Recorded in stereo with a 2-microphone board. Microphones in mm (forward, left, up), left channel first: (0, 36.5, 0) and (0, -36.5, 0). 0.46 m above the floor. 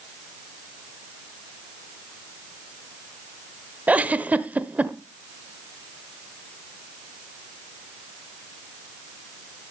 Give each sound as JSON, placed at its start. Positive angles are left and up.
{"t": 3.9, "sound": "a giggle", "side_deg": -20, "distance_m": 0.8}